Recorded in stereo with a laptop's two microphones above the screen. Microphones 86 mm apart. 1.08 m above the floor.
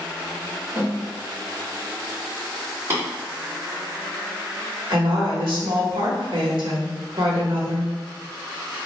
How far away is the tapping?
About 2.0 m.